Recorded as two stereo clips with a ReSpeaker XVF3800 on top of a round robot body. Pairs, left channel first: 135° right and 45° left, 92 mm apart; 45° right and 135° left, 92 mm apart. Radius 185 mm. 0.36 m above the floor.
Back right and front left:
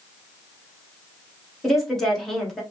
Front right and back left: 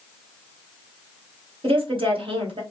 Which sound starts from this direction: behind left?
A woman speaking, at 1.6 s.